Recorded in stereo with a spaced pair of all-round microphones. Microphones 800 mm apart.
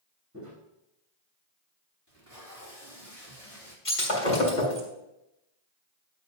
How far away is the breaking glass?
About 3 m.